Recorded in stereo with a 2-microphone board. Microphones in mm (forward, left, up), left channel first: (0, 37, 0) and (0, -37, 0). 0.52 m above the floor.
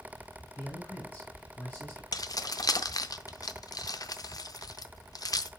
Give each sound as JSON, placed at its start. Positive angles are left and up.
{"t": 0.6, "sound": "a man speaking", "side_deg": 25, "distance_m": 3.0}
{"t": 2.1, "sound": "keys jangling", "side_deg": 55, "distance_m": 0.5}